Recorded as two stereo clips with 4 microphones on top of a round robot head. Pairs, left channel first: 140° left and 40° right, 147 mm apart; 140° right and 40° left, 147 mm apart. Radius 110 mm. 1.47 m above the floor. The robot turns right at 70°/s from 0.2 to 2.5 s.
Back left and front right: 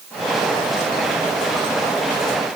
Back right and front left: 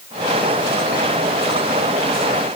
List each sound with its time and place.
Only background noise.